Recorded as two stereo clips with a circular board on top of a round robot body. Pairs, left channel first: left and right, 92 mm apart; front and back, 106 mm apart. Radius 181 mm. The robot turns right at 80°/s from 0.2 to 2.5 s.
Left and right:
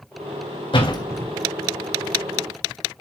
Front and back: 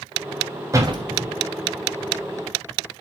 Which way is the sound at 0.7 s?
115° left.